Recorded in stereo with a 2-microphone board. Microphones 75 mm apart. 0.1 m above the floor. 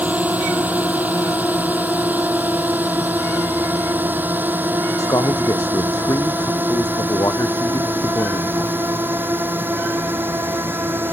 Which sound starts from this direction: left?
A man speaking, at 5.0 s.